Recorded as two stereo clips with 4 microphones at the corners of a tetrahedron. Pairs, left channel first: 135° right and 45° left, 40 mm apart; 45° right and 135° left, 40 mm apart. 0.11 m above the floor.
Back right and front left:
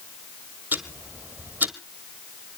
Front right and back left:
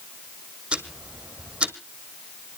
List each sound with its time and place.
0.7 s ticking: 75° left, 1.3 m